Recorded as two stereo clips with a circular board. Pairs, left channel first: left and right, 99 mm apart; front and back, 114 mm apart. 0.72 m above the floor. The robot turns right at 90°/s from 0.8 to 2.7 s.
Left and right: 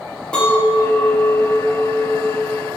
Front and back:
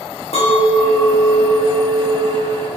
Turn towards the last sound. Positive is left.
turn(degrees=180)